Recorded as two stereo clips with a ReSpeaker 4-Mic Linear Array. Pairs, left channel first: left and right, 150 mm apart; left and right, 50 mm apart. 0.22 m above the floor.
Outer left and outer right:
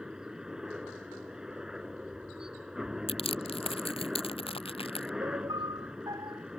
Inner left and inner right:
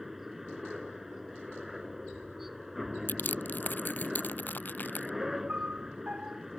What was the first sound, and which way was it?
A helicopter, 5° right (ahead or behind).